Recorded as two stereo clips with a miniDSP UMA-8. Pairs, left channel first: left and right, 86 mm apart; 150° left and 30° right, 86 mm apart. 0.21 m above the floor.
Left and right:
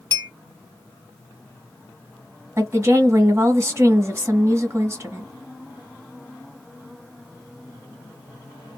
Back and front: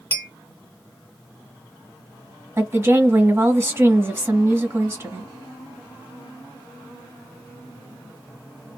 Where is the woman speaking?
60° right, 1.3 m.